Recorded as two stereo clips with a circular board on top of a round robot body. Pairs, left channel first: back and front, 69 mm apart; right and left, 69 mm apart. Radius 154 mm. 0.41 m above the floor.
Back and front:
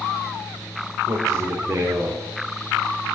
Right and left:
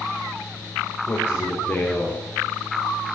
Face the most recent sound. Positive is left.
turn(degrees=-35)